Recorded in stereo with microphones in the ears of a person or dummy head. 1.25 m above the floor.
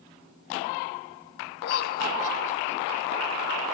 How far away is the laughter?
About 1.7 m.